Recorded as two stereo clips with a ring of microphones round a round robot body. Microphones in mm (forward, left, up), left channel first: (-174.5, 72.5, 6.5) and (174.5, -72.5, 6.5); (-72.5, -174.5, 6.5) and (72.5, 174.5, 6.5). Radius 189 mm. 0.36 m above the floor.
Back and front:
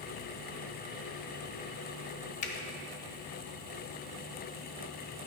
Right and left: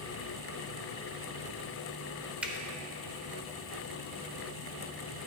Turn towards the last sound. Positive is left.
turn(degrees=150)